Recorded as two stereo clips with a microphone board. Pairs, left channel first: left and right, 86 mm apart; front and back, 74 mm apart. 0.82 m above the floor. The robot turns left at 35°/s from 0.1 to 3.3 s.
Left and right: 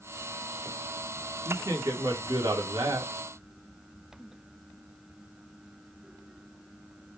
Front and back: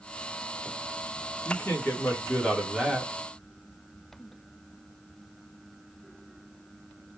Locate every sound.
1.4 s a man speaking: 40° right, 1.5 m; by 3.1 s 100° right, 1.5 m